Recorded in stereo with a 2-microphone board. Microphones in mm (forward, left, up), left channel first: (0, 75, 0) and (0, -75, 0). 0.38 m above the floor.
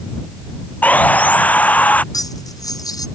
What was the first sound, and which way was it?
Sawing, 10° left (ahead or behind).